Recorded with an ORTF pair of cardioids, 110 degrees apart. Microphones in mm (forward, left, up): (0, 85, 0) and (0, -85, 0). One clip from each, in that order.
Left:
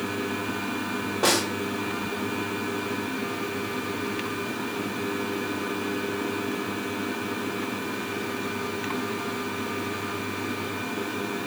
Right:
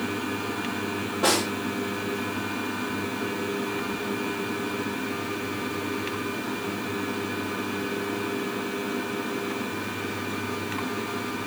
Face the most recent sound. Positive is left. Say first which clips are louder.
# even
turn(degrees=25)